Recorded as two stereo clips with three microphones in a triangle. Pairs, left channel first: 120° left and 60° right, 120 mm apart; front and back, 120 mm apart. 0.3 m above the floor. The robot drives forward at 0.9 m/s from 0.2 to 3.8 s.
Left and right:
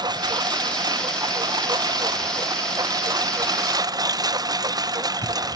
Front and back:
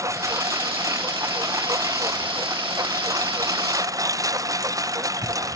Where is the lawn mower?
115° right; by 5.6 s 120° right.